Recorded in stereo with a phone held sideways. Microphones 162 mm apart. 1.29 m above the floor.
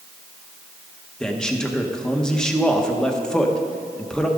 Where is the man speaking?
5° left (ahead or behind), 1.1 m.